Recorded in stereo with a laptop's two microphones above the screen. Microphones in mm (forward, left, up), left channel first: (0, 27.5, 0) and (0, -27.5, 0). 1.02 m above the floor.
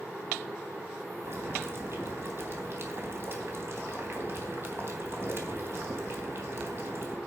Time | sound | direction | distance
1.2 | boiling | 45° right (ahead or behind) | 3 m